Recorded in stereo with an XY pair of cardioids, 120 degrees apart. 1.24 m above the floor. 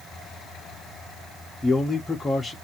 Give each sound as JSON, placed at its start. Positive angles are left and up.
{"t": 1.6, "sound": "a man speaking", "azimuth_deg": 20, "distance_m": 0.8}